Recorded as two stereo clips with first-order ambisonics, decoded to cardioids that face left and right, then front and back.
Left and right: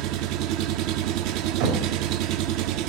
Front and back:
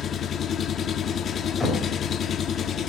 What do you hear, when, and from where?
0.0 s an engine running: 65° right, 0.7 m
1.6 s knocking: 80° right, 3.5 m